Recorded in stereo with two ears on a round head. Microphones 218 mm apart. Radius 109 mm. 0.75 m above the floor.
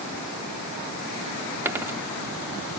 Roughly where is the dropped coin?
Centre.